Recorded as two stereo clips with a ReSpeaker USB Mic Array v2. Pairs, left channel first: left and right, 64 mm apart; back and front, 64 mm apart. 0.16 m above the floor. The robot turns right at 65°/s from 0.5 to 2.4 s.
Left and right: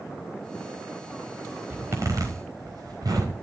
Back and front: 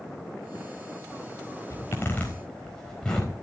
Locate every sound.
1.7 s a zipper: 145° right, 4.5 m; by 3.4 s 100° right, 4.5 m